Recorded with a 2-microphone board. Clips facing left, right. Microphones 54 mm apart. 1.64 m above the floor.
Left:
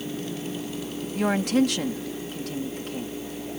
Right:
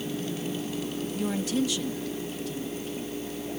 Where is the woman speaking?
65° left (ahead or behind).